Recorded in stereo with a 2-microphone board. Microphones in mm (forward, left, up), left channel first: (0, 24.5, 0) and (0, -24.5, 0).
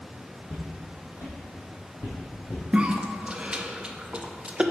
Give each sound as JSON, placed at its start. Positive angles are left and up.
{"t": 0.5, "sound": "footsteps", "side_deg": 60, "distance_m": 2.0}
{"t": 2.7, "sound": "a cough", "side_deg": -20, "distance_m": 0.5}